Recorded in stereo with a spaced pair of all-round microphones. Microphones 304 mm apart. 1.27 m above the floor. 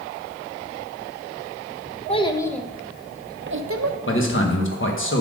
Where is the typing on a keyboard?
No typing on a keyboard in this recording.